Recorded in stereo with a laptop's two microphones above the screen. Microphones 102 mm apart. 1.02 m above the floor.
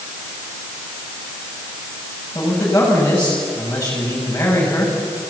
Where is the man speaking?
20° left (ahead or behind), 7.5 m.